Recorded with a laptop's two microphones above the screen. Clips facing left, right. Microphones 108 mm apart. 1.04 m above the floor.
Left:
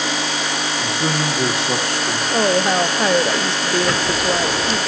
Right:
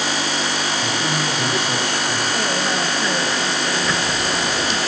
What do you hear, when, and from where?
0.8 s a man speaking: 70° left (ahead or behind), 1.9 m
2.3 s a woman speaking: 65° left (ahead or behind), 0.6 m
3.8 s ticking: 65° left (ahead or behind), 1.3 m